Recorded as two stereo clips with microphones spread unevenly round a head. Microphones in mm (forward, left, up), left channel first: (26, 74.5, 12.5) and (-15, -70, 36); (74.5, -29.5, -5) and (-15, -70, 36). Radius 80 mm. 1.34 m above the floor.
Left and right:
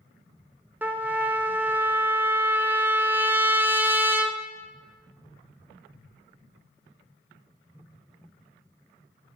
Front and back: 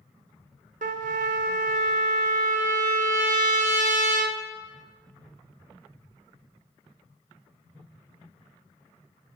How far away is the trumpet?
About 0.6 m.